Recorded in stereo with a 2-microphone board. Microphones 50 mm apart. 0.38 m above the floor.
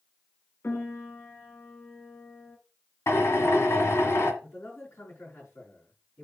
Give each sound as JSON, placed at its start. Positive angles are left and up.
{"t": 0.6, "sound": "a piano", "side_deg": 50, "distance_m": 1.7}
{"t": 3.1, "sound": "a drill", "side_deg": 60, "distance_m": 1.8}
{"t": 4.4, "sound": "a man speaking", "side_deg": 60, "distance_m": 3.5}